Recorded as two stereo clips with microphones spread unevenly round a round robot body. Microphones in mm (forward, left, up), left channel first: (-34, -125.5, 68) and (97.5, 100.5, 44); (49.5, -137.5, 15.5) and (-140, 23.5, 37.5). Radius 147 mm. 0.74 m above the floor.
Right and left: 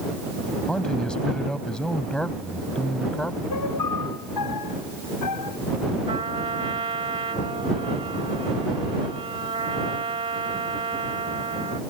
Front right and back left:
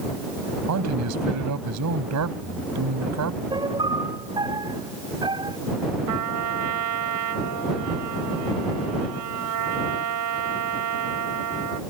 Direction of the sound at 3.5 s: 150° right.